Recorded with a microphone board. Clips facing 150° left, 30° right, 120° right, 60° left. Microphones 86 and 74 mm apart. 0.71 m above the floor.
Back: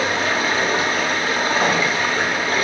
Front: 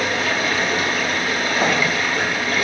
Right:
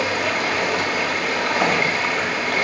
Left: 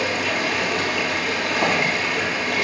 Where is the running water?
150° right, 1.4 m.